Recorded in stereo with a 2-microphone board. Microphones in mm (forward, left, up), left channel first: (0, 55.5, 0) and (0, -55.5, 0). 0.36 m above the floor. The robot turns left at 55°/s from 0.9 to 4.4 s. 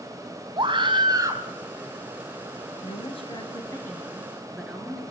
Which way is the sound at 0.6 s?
50° right (ahead or behind).